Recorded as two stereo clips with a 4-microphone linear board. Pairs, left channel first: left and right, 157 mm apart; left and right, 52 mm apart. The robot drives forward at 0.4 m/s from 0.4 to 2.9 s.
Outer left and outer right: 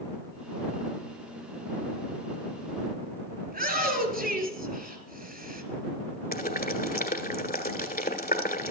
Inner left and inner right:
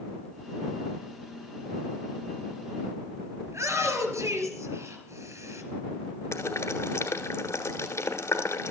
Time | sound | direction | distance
3.5 | a shout | 75° right (ahead or behind) | 4.5 m
6.3 | boiling | 70° left (ahead or behind) | 1.2 m